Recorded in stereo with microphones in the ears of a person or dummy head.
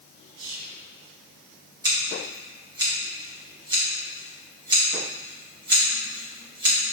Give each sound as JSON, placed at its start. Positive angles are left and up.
{"t": 0.4, "sound": "whispering", "side_deg": -85, "distance_m": 1.1}
{"t": 1.8, "sound": "scissors", "side_deg": -25, "distance_m": 0.9}